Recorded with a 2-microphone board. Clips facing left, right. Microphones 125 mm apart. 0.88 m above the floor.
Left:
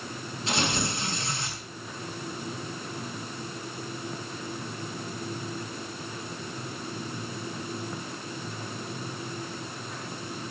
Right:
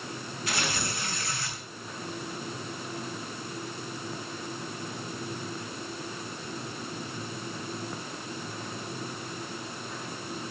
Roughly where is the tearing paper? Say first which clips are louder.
Left 4 dB; left.